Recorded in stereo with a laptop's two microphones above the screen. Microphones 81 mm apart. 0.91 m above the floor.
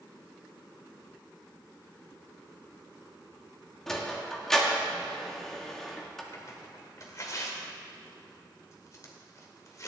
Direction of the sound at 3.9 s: 5° left (ahead or behind).